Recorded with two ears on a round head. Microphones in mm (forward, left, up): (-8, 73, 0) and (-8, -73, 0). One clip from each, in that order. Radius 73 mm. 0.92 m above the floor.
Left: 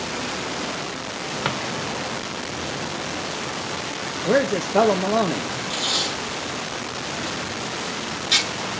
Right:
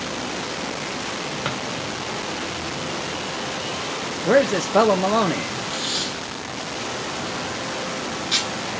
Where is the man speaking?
25° right (ahead or behind), 0.5 m.